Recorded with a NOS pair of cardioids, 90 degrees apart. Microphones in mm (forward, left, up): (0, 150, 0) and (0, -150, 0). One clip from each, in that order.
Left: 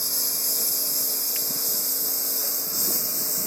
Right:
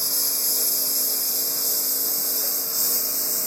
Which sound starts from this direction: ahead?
A lawn mower, at 0.0 s.